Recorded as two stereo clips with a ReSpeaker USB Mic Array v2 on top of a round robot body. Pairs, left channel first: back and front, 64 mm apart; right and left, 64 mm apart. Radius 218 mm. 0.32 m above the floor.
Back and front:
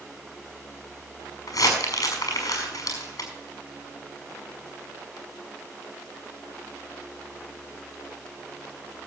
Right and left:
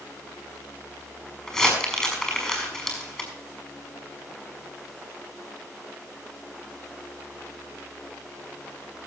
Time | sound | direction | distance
1.5 | crumpling | 170° right | 5.5 m